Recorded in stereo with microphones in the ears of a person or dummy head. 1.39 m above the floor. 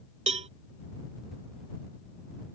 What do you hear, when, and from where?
0.3 s a cowbell: 30° right (ahead or behind)